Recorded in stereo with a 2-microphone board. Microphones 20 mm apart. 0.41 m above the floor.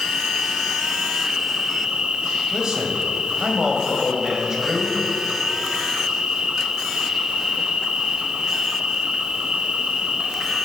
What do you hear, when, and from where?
0.0 s an insect: 60° right (ahead or behind), 1.0 m
2.5 s a man speaking: 30° right (ahead or behind), 1.9 m